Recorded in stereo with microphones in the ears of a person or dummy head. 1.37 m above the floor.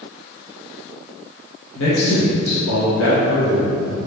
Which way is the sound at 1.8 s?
80° left.